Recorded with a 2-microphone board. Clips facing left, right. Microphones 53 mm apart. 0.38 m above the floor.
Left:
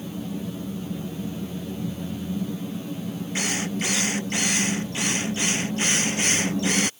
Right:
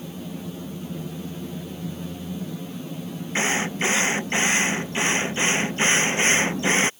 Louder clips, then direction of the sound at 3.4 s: Right 5 dB; 30° right (ahead or behind).